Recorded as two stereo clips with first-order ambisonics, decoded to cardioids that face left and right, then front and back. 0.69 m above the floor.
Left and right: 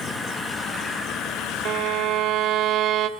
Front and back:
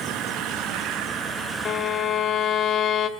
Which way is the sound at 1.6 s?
50° right.